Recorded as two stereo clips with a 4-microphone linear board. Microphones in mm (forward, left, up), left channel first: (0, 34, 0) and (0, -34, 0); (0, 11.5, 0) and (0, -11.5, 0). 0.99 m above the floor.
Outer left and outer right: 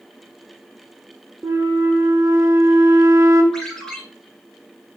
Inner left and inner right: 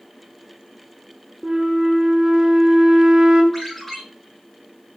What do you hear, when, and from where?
1.4 s a flute: 45° right (ahead or behind), 0.8 m
3.5 s a ringtone: 5° left (ahead or behind), 3.5 m